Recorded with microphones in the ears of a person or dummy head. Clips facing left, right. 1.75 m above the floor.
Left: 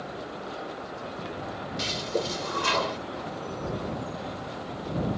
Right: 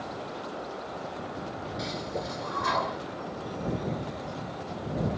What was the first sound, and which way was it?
A toilet flushing, 40° left (ahead or behind).